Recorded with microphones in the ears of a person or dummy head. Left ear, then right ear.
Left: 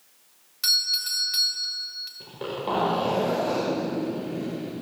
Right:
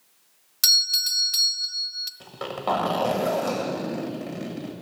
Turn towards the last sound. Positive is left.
turn(degrees=-25)  # may be behind; listen again after turning